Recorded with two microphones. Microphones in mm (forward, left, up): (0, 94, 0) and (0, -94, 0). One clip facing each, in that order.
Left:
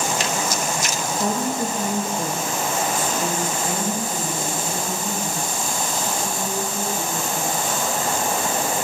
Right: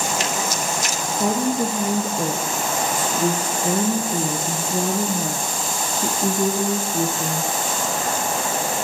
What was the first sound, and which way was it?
A woman speaking, 10° right (ahead or behind).